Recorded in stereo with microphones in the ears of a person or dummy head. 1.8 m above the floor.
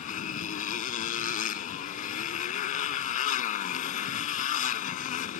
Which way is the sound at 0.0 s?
50° left (ahead or behind).